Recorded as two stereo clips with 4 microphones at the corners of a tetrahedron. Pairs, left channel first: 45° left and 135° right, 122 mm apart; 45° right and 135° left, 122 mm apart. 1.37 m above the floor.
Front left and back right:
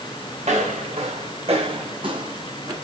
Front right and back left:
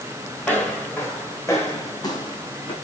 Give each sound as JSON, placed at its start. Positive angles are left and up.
{"t": 0.4, "sound": "footsteps", "azimuth_deg": -125, "distance_m": 4.0}